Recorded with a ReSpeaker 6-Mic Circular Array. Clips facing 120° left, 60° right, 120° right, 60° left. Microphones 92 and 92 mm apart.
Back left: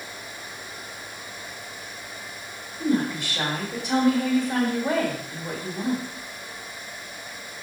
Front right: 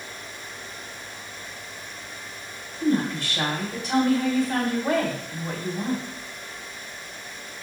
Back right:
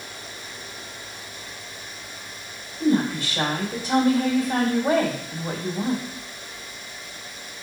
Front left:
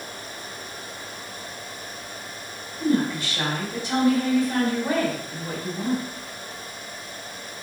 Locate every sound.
2.8 s a woman speaking: 175° right, 1.7 m